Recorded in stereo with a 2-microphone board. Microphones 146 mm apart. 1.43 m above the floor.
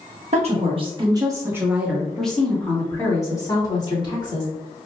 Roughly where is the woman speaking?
Right.